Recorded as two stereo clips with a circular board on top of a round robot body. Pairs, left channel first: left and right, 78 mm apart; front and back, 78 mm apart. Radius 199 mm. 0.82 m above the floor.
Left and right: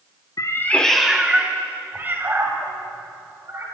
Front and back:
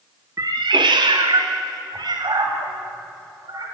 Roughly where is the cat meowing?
Behind left.